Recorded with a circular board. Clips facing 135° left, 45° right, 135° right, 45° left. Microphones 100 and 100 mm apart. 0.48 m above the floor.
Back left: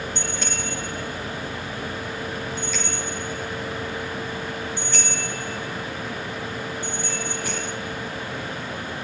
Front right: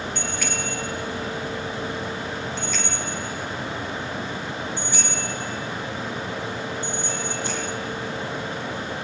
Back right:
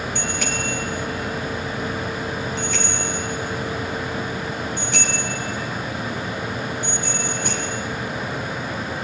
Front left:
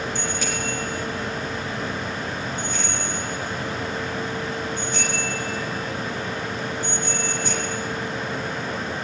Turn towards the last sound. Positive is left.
turn(degrees=-110)